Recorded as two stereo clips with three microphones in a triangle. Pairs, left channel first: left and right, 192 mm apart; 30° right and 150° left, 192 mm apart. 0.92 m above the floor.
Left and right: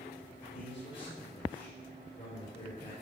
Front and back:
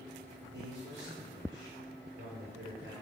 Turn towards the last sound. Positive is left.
turn(degrees=140)